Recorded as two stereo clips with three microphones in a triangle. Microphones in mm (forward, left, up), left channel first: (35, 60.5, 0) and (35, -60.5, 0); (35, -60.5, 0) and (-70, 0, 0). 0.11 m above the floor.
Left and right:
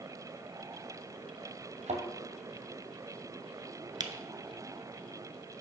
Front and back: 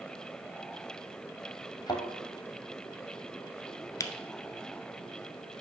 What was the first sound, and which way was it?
A thud, 85° right.